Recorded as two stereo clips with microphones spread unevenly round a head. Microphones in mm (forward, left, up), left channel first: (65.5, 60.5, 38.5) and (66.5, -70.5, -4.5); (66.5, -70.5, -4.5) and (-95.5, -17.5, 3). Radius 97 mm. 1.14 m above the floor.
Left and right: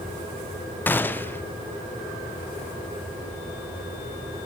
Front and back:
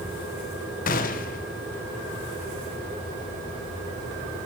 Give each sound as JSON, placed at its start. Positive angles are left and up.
{"t": 0.9, "sound": "a gunshot", "azimuth_deg": 0, "distance_m": 0.6}